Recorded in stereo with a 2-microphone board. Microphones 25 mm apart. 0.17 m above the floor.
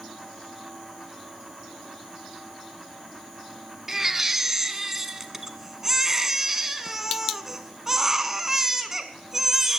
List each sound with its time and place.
3.9 s a baby crying: 15° right (ahead or behind), 0.8 m